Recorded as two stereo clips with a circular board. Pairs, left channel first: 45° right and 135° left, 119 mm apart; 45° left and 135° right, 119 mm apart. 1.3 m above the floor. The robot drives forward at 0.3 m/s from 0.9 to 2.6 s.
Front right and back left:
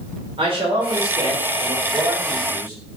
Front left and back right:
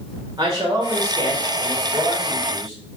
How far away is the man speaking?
About 0.7 m.